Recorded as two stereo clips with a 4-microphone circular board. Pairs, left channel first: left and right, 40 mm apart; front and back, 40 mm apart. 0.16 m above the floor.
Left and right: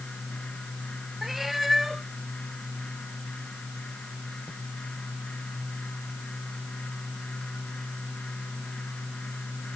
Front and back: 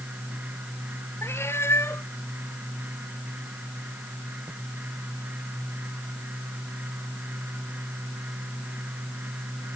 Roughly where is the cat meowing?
Ahead.